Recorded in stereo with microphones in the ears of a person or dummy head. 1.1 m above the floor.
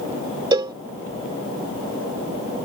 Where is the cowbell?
20° right (ahead or behind).